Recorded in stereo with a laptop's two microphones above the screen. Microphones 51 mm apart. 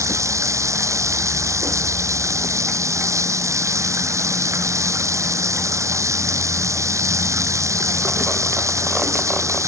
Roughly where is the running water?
Right.